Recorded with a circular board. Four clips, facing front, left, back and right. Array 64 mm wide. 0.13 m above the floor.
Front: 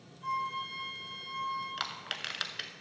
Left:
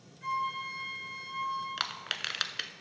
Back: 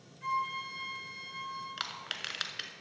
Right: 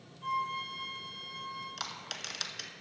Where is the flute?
145° left, 2.5 m.